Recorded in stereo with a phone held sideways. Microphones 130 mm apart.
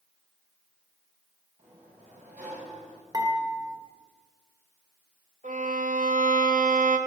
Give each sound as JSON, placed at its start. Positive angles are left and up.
{"t": 1.6, "sound": "a sliding door", "side_deg": -75, "distance_m": 5.5}
{"t": 3.1, "sound": "dishes clattering", "side_deg": -30, "distance_m": 3.0}
{"t": 5.4, "sound": "a violin", "side_deg": -75, "distance_m": 1.9}